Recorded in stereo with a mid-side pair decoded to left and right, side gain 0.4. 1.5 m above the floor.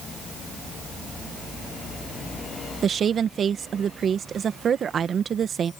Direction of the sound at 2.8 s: 55° right.